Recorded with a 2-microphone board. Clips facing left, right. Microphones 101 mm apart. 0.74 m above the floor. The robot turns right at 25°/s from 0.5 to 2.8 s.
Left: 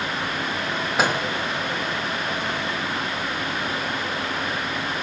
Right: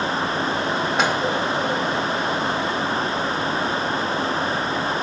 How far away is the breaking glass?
No breaking glass in this recording.